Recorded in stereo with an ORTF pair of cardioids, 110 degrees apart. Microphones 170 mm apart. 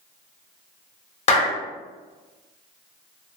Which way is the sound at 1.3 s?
40° left.